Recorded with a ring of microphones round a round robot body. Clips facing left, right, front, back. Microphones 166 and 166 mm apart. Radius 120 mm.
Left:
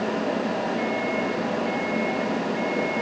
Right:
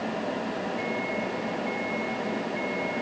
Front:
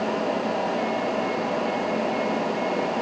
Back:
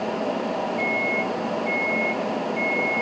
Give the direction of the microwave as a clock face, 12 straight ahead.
5 o'clock.